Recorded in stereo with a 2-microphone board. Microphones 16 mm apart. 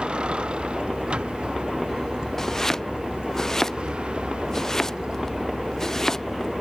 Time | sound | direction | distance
0.0 | a vehicle | 75° right (ahead or behind) | ?
2.4 | chopping | 30° left (ahead or behind) | ?